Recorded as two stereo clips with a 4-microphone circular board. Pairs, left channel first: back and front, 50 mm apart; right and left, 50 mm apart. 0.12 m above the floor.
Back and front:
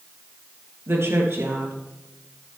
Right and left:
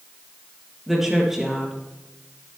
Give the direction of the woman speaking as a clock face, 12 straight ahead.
12 o'clock.